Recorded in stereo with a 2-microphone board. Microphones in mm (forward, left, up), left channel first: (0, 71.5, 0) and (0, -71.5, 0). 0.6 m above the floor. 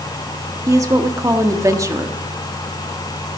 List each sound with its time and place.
0.7 s a woman speaking: 20° right (ahead or behind), 1.0 m